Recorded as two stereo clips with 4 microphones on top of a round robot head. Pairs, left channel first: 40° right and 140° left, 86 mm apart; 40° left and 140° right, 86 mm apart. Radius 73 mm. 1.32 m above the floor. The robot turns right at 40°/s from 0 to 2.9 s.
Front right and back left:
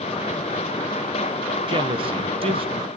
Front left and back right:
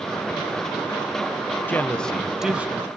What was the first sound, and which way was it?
A man speaking, 110° left.